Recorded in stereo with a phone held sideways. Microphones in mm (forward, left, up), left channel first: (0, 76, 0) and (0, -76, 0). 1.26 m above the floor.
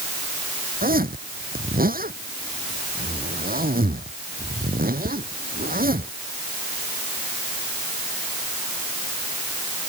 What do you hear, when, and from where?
0.8 s a zipper: 75° right (ahead or behind)